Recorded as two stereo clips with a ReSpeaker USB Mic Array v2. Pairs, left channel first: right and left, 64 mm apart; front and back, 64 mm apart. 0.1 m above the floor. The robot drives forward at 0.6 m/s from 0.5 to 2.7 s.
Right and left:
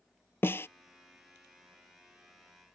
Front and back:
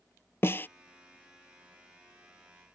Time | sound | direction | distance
0.4 | a snare drum | 45° right | ?